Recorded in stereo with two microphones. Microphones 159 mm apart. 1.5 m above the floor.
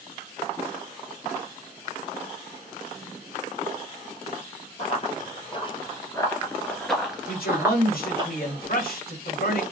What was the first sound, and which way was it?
Running footsteps, 45° left (ahead or behind).